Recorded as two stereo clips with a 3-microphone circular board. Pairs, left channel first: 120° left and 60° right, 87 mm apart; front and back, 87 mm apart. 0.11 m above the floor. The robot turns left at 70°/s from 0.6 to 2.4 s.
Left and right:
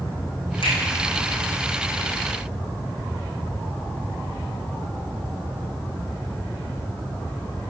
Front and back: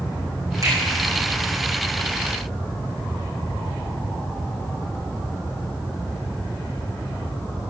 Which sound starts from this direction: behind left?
A finger snap, at 0.6 s.